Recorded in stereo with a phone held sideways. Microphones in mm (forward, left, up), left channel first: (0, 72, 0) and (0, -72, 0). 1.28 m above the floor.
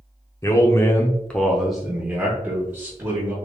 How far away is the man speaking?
About 0.6 m.